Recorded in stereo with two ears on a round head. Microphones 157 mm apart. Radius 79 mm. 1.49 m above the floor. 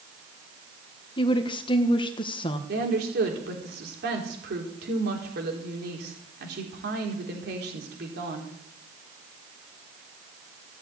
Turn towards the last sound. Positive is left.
turn(degrees=-60)  # may be behind; listen again after turning